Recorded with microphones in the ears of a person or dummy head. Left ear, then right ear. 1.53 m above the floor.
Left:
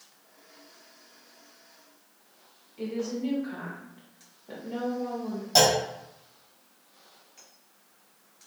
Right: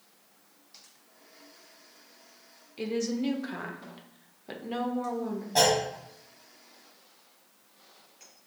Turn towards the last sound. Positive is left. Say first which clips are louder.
# left 3 dB
turn(degrees=75)  # may be behind; listen again after turning